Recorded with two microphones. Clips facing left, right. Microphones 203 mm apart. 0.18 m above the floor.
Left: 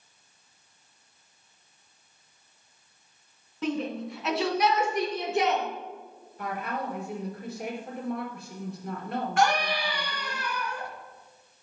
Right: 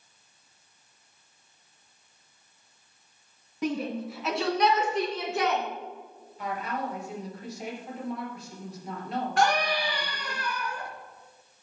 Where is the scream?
35° right (ahead or behind), 2 m.